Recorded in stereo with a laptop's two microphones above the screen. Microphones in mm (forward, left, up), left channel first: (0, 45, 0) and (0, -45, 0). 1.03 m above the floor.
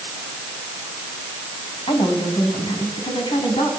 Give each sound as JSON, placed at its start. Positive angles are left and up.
{"t": 1.9, "sound": "a woman speaking", "side_deg": 70, "distance_m": 6.5}